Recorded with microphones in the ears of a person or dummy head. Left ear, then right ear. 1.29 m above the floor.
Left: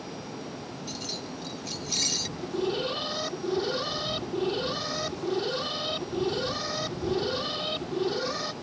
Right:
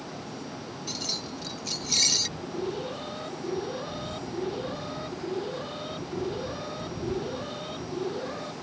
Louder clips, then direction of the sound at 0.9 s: Right 4 dB; 15° right (ahead or behind).